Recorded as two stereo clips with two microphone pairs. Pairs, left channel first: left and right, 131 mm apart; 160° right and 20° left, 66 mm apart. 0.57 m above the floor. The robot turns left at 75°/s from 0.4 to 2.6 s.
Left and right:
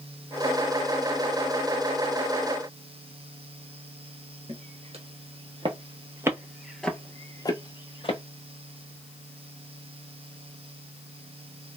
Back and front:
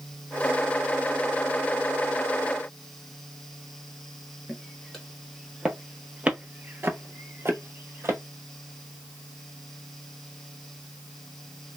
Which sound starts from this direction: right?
Footsteps, at 4.5 s.